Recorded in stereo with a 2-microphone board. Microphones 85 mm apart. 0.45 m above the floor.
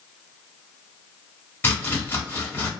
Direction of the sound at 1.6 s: 25° left (ahead or behind).